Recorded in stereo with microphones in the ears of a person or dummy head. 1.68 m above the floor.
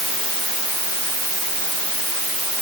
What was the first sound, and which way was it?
Only background noise.